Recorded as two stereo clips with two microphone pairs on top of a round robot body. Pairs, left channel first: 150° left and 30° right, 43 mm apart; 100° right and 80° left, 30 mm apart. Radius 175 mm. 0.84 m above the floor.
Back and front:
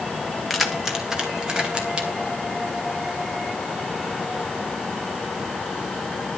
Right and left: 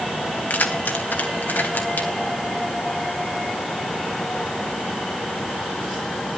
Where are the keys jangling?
115° right, 1.9 m; by 2.1 s 95° right, 3 m.